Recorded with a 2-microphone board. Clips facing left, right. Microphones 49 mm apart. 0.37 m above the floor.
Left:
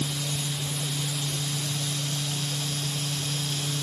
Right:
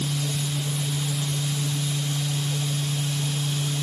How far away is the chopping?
No chopping in this recording.